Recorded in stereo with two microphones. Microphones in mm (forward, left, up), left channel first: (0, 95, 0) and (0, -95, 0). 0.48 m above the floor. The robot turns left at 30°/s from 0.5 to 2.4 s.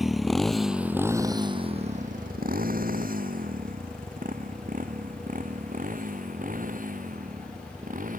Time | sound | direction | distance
0.0 | a motorcycle | centre (ahead or behind) | ?